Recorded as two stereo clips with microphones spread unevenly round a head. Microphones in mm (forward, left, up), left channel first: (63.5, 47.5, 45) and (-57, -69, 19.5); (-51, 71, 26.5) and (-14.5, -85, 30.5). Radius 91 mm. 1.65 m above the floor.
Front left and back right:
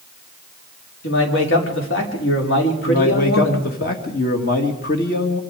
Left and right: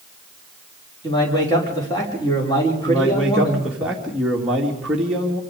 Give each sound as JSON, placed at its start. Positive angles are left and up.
{"t": 1.0, "sound": "a man speaking", "azimuth_deg": 35, "distance_m": 5.5}
{"t": 2.9, "sound": "a man speaking", "azimuth_deg": 10, "distance_m": 2.5}